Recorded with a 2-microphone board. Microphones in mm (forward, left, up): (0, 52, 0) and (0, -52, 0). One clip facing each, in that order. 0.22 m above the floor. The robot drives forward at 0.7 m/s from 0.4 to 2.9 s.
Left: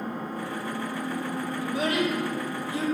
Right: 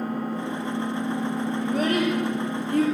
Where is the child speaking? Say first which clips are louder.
Right 3 dB; 40° right (ahead or behind), 5.5 m; by 2.8 s 50° right (ahead or behind), 5 m.